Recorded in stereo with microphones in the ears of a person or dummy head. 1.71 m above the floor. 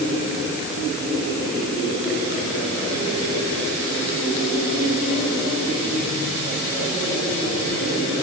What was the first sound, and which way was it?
Only background noise.